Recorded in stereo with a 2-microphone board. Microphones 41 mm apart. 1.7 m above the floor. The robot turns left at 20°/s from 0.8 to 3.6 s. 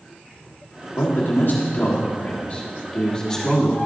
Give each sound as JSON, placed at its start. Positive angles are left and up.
{"t": 0.9, "sound": "a man speaking", "azimuth_deg": 65, "distance_m": 1.7}